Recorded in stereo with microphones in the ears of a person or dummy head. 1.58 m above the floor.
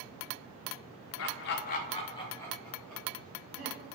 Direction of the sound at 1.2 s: 60° left (ahead or behind).